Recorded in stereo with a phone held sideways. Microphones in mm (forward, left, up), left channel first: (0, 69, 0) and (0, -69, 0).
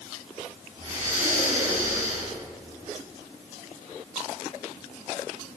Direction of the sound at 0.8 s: 50° right (ahead or behind).